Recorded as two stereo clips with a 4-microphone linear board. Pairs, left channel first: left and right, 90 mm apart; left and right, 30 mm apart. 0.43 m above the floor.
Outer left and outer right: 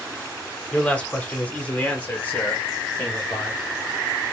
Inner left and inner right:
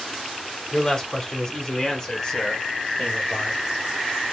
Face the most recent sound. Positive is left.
turn(degrees=15)  # may be behind; listen again after turning